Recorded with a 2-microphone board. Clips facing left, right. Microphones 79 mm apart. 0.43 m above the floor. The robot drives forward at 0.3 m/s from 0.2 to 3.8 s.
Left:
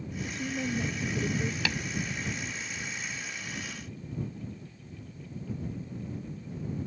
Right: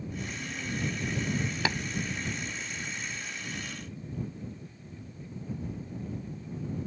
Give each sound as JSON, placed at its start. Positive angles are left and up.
{"t": 0.2, "sound": "a woman speaking", "side_deg": 75}
{"t": 1.6, "sound": "tapping", "side_deg": -30}